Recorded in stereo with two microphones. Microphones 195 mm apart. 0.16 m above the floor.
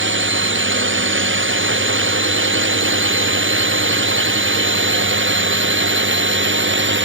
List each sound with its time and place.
0.0 s a drone: 85° right; by 7.1 s 75° right (ahead or behind)